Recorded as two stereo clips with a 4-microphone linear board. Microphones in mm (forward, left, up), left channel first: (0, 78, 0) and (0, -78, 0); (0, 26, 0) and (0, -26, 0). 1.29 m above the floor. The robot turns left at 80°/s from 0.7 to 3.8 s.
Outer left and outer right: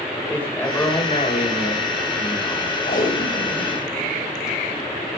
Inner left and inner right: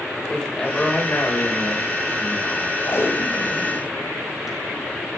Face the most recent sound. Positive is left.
turn(degrees=-5)  # may be behind; listen again after turning